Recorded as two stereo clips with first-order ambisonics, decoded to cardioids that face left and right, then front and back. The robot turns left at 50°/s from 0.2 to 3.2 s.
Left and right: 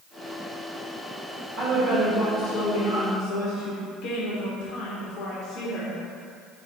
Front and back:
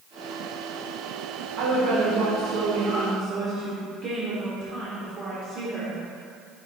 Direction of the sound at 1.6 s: 155° right.